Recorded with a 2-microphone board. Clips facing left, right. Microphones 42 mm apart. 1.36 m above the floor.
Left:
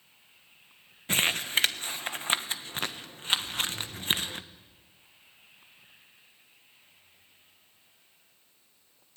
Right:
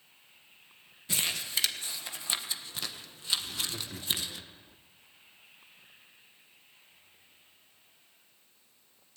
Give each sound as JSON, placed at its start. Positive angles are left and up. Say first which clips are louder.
{"t": 1.1, "sound": "crumpling", "louder": "left 7 dB", "side_deg": 45, "distance_m": 1.3}
{"t": 3.4, "sound": "laughter", "louder": "left 4 dB", "side_deg": -85, "distance_m": 3.5}